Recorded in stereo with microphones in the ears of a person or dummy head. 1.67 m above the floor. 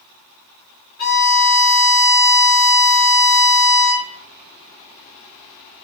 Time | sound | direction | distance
1.0 | a violin | 45° left (ahead or behind) | 1.3 m